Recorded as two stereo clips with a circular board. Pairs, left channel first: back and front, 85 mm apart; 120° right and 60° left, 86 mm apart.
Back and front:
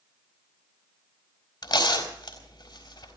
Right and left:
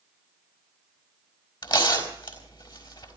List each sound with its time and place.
1.6 s tearing paper: 145° right, 4 m